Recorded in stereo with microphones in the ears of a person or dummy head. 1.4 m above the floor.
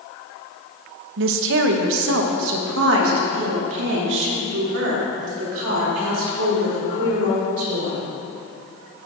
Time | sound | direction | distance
1.2 | a woman speaking | 65° right (ahead or behind) | 0.7 m